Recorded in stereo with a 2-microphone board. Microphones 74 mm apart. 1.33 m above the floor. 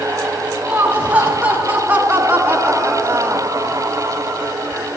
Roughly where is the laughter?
Right.